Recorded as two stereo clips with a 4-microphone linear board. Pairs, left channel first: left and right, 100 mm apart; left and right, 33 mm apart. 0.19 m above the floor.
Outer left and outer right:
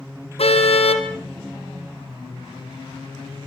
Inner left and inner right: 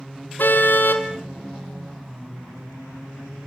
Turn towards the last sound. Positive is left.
turn(degrees=80)